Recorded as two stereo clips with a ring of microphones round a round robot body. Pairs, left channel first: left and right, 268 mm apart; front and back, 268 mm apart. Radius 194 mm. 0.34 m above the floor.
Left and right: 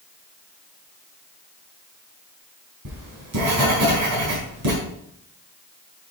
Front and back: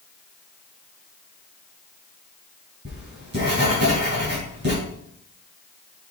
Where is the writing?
125° right, 3.5 m.